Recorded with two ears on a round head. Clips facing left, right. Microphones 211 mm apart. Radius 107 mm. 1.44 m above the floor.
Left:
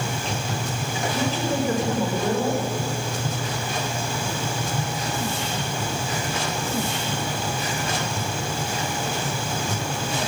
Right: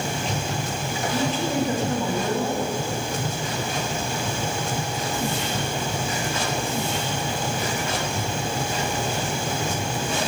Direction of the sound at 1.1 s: 70° left (ahead or behind).